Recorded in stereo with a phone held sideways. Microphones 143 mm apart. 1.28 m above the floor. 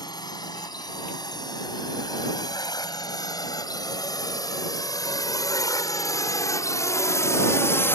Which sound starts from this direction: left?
A drone, at 0.0 s.